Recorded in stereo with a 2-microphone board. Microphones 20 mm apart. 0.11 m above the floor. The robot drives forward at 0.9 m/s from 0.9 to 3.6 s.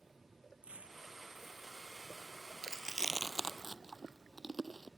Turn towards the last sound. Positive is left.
turn(degrees=-15)  # may be behind; listen again after turning